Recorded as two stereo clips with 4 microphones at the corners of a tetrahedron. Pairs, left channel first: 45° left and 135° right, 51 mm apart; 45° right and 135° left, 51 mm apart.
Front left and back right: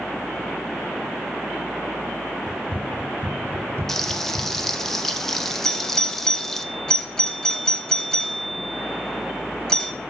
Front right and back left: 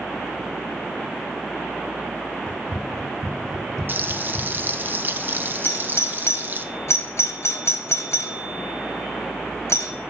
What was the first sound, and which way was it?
Running footsteps, 65° right.